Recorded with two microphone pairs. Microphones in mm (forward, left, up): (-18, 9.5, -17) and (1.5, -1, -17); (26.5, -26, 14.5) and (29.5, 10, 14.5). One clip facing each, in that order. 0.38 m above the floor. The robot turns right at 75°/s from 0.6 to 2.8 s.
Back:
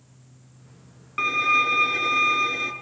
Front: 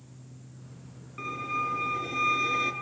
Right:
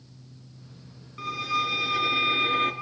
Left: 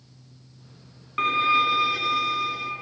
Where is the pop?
No pop in this recording.